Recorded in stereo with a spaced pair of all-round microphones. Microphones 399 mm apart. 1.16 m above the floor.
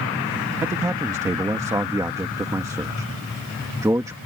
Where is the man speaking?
10° right (ahead or behind).